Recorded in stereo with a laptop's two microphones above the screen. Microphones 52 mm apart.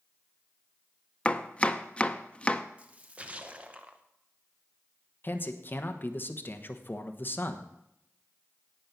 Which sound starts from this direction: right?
A splash, at 2.8 s.